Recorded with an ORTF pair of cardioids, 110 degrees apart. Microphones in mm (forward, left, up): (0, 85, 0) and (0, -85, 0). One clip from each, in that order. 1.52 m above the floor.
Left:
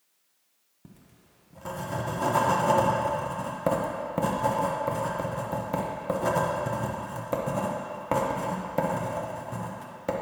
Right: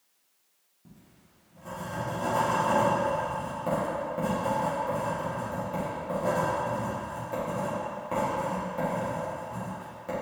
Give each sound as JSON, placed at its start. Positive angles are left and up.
{"t": 0.8, "sound": "writing", "azimuth_deg": 55, "distance_m": 1.5}